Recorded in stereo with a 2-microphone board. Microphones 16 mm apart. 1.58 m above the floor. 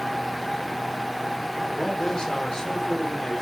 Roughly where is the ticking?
No ticking in this recording.